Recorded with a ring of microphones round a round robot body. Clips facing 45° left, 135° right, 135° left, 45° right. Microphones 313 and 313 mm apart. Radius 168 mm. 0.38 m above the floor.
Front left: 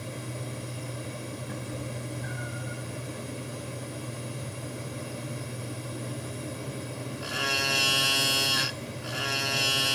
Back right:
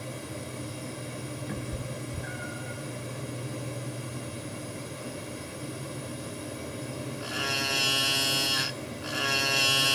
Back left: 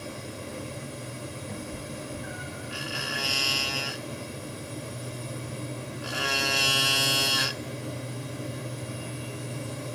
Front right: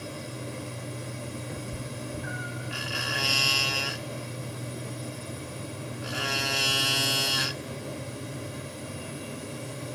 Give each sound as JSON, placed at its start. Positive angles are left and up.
{"t": 1.5, "sound": "a cat meowing", "azimuth_deg": -120, "distance_m": 0.8}